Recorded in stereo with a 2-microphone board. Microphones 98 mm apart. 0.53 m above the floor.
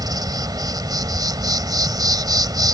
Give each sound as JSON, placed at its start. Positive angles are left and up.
{"t": 0.0, "sound": "an insect", "side_deg": -45}